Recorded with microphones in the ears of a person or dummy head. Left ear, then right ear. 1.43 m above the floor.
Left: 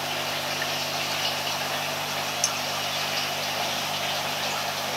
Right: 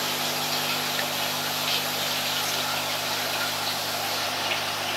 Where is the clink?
45° left (ahead or behind), 2.5 m.